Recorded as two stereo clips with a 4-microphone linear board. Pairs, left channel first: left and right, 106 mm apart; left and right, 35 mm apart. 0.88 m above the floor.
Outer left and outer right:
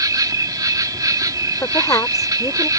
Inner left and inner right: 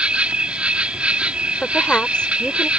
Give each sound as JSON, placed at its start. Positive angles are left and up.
{"t": 0.0, "sound": "an insect", "side_deg": -35}
{"t": 1.6, "sound": "a woman speaking", "side_deg": 30}